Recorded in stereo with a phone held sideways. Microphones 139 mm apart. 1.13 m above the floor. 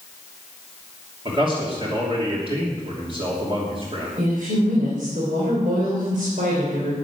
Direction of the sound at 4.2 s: 75° right (ahead or behind).